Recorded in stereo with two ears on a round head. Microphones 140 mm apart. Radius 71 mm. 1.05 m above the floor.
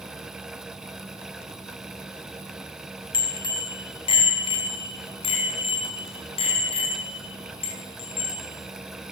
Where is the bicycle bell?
35° left (ahead or behind), 4.5 m; by 8.5 s 40° left (ahead or behind), 12 m.